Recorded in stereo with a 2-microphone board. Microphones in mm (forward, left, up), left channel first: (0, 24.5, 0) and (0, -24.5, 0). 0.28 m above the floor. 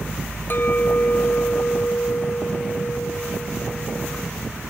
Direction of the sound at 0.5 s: 40° left (ahead or behind).